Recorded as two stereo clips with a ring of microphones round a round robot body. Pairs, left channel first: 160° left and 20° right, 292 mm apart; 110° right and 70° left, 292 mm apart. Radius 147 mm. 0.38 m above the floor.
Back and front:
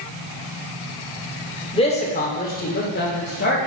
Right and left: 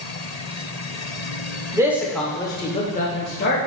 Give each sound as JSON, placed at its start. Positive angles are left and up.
{"t": 1.7, "sound": "a man speaking", "azimuth_deg": 125, "distance_m": 1.0}